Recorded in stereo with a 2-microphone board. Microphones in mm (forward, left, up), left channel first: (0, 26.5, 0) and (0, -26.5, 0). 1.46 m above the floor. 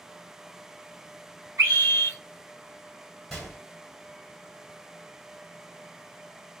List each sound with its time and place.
1.6 s a scream: 70° right (ahead or behind), 1.5 m
3.3 s a gunshot: 5° left (ahead or behind), 1.5 m